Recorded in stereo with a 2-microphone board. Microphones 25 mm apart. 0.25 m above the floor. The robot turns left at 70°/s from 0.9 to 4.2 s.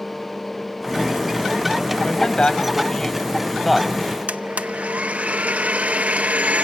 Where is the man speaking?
100° left, 1.8 m; by 4.2 s 55° right, 1.8 m.